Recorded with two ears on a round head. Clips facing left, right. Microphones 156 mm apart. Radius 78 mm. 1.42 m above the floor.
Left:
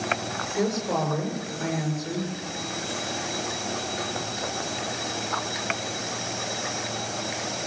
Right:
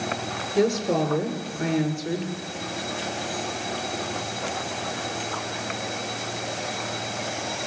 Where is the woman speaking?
40° right (ahead or behind), 6 m.